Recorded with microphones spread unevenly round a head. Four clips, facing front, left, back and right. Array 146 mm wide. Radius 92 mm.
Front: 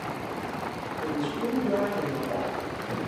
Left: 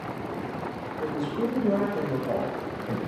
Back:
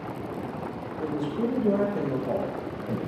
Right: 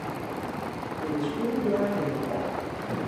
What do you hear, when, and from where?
1.0 s a woman speaking: 160° left, 1.3 m